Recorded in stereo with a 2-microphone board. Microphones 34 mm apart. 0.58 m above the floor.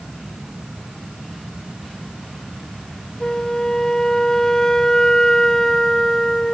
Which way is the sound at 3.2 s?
15° left (ahead or behind).